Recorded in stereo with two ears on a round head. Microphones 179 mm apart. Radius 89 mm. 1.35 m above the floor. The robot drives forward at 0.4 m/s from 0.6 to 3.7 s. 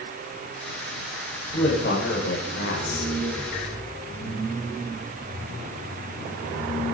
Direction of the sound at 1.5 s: 55° left (ahead or behind).